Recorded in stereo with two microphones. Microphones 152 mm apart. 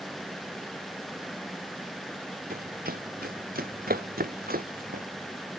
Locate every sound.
2.5 s running footsteps: 75° right (ahead or behind)